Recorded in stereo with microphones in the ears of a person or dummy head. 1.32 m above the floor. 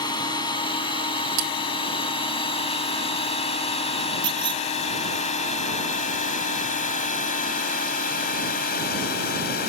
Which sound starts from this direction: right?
Cutlery clinking, at 1.4 s.